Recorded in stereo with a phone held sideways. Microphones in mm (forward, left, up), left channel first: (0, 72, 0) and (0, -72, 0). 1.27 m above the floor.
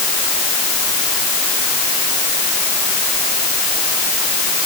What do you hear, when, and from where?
Only background noise.